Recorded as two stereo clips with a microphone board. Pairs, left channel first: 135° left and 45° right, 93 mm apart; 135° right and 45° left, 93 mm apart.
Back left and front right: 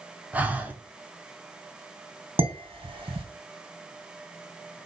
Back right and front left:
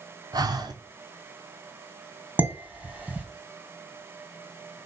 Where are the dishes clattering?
30° right, 3 m.